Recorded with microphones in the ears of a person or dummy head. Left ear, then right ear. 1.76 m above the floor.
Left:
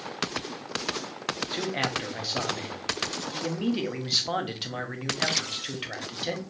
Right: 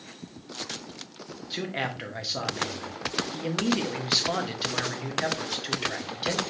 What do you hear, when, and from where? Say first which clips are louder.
1.5 s a man speaking: even; centre (ahead or behind), 0.7 m